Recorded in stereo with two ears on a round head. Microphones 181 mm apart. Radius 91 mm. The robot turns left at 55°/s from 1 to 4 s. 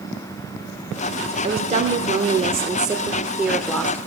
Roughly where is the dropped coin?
No dropped coin in this recording.